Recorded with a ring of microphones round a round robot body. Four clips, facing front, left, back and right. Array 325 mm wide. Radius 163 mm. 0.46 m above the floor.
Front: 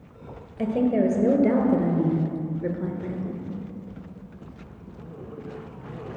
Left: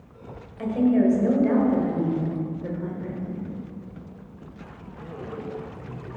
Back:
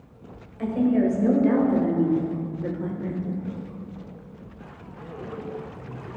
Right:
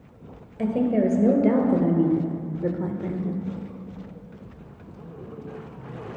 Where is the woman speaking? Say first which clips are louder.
Left 2 dB, even; 40° right, 2 m; by 3.5 s 90° right, 1.4 m.